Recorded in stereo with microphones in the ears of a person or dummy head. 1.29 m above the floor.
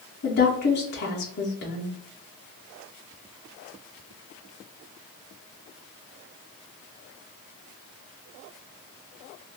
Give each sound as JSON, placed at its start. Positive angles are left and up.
{"t": 0.2, "sound": "a woman speaking", "side_deg": 55, "distance_m": 0.6}